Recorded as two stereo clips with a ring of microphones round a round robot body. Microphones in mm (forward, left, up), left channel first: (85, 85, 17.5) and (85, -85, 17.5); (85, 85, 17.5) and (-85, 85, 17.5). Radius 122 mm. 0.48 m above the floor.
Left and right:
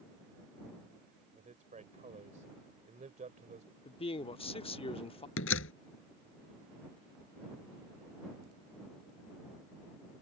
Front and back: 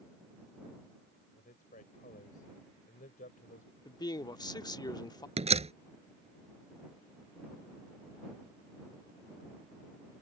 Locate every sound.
1.4 s a man speaking: 50° right
3.9 s a man speaking: 55° left
5.4 s a door slam: 125° left